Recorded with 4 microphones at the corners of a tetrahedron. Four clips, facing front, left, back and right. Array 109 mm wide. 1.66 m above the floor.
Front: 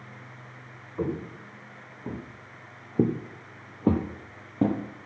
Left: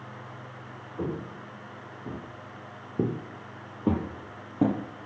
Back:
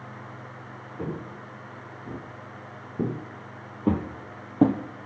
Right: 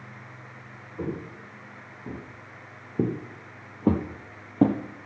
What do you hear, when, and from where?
1.0 s footsteps: 5° left, 5 m; by 4.8 s 150° right, 1.9 m